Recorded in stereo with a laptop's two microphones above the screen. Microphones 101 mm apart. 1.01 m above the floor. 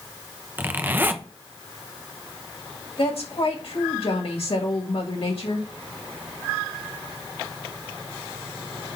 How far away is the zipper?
About 0.9 m.